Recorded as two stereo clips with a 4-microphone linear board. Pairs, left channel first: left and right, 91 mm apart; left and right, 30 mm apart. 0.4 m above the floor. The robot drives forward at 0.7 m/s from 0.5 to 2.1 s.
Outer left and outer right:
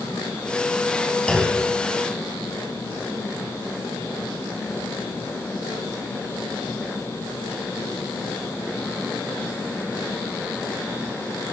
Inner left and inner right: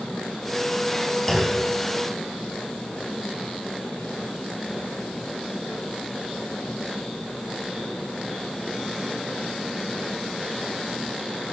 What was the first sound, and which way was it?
A clunk, 10° left (ahead or behind).